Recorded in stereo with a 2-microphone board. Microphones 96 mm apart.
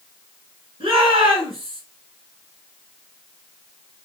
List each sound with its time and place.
0.8 s a shout: 70° right (ahead or behind), 3.5 m